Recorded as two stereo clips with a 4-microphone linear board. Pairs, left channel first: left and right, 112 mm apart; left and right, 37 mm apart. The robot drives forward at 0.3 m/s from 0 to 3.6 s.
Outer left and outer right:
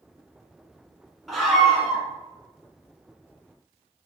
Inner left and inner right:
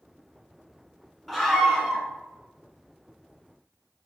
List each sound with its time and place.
1.3 s a scream: centre (ahead or behind), 1.2 m